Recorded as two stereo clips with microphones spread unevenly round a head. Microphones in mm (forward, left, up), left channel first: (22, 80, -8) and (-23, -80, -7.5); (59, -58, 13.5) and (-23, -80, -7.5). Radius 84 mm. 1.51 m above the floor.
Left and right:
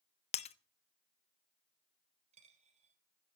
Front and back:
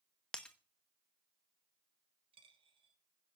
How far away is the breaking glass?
About 0.9 m.